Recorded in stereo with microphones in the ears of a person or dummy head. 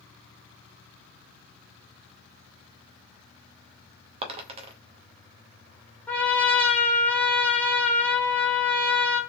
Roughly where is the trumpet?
Centre.